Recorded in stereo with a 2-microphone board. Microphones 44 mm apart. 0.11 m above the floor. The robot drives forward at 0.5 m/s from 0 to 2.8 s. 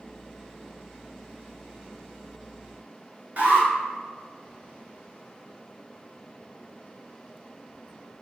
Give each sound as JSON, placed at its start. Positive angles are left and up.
{"t": 3.4, "sound": "an alarm", "side_deg": -40, "distance_m": 1.4}